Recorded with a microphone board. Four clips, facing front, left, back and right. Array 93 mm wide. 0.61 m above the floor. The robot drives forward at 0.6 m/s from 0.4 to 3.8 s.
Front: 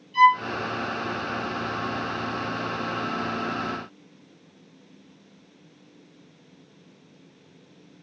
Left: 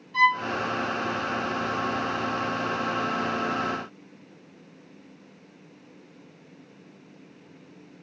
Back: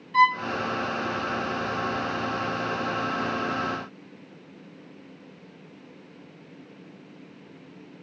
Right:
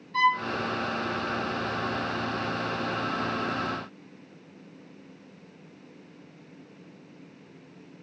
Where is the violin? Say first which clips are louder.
Left 2 dB, front 3 dB; 170° left, 4 m.